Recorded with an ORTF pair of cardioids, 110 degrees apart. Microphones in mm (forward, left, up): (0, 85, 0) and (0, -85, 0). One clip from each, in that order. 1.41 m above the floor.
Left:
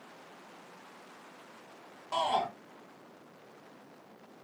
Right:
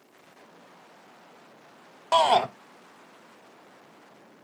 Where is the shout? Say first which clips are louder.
Right 10 dB; 70° right, 0.6 m.